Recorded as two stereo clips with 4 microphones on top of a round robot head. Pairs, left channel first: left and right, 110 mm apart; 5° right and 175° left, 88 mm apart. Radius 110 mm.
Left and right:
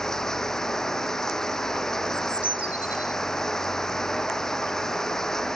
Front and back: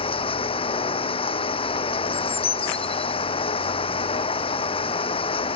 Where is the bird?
10° right.